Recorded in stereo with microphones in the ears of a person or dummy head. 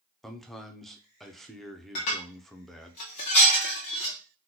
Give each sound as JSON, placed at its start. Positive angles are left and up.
{"t": 0.2, "sound": "a man speaking", "side_deg": 0, "distance_m": 0.5}
{"t": 1.9, "sound": "dishes clattering", "side_deg": 30, "distance_m": 0.7}